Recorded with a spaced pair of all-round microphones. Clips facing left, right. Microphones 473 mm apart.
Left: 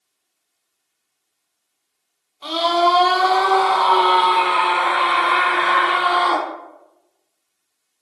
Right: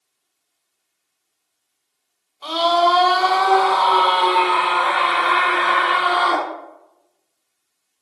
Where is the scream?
40° left (ahead or behind), 0.9 m; by 6.5 s 10° left (ahead or behind), 2 m.